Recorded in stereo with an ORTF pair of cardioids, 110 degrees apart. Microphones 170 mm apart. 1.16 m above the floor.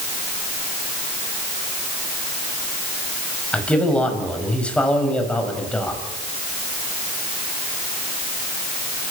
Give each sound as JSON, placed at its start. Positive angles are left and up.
{"t": 3.5, "sound": "a man speaking", "azimuth_deg": 5, "distance_m": 6.0}